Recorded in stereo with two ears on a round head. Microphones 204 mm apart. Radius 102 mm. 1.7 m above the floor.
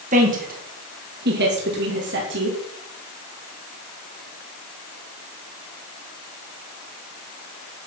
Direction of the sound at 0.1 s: 30° right (ahead or behind).